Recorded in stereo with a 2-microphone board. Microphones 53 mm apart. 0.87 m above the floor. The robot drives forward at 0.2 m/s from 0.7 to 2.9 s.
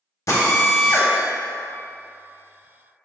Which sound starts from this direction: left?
A drill, at 0.3 s.